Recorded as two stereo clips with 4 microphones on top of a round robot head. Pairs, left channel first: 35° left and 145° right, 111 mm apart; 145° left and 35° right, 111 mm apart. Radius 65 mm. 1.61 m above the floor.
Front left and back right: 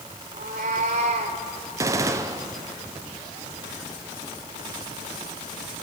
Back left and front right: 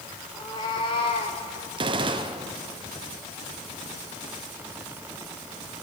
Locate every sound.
0.3 s a cat meowing: 155° right, 2 m; by 1.4 s straight behind, 2.5 m
1.8 s a gunshot: 80° right, 1.1 m